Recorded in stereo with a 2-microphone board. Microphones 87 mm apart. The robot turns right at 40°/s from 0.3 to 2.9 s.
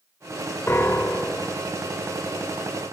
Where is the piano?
130° left, 0.6 m; by 1.6 s 165° left, 0.6 m.